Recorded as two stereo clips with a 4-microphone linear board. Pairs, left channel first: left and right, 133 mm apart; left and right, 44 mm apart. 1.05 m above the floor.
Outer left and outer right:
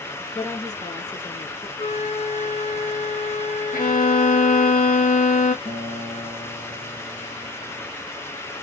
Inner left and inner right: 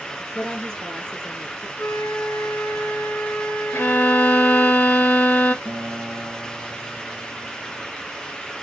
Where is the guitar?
60° left (ahead or behind), 2 m.